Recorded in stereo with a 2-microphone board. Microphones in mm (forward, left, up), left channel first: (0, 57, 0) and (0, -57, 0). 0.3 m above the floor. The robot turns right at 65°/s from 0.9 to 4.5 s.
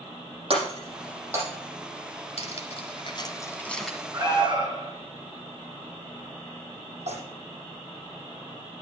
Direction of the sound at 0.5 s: 55° right (ahead or behind).